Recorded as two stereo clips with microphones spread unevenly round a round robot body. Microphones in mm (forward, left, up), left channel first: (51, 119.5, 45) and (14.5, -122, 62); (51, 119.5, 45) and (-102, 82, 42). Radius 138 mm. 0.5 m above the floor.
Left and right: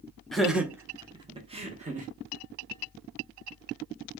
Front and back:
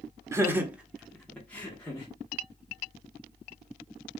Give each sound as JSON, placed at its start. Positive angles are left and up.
{"t": 0.3, "sound": "laughter", "azimuth_deg": 160, "distance_m": 0.8}